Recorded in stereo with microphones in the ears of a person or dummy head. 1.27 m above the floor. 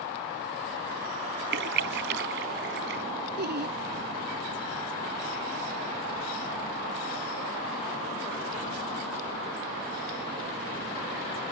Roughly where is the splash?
Right.